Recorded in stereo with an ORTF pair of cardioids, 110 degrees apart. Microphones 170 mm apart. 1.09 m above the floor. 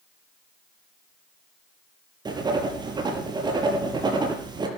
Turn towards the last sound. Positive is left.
turn(degrees=-25)